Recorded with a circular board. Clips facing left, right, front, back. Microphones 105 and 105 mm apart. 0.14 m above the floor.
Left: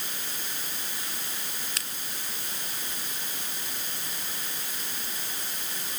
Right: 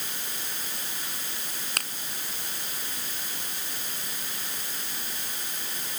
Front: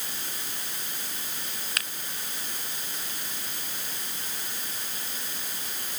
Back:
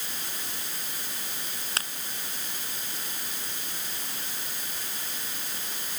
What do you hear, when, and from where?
1.8 s a finger snap: 120° right